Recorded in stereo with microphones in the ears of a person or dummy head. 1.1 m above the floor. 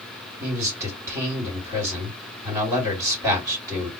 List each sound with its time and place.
0.4 s a man speaking: 20° right (ahead or behind), 2 m